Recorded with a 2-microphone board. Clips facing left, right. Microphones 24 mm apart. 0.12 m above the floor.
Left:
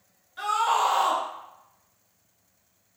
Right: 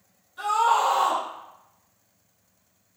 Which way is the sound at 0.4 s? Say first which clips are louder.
Right 2 dB; 35° left (ahead or behind).